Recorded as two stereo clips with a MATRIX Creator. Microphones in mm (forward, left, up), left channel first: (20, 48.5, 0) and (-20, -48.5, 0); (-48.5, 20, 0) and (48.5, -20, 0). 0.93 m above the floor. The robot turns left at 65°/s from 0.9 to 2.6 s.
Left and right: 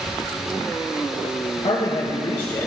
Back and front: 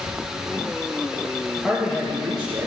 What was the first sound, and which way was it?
A man speaking, 70° left.